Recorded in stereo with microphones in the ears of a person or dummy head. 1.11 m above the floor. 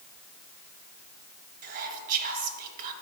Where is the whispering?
45° right (ahead or behind), 1.0 m.